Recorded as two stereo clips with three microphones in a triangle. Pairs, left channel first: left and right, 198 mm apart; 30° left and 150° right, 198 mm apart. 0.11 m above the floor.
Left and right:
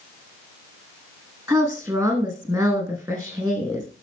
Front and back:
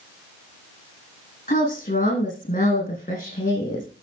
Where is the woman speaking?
20° right, 5 m.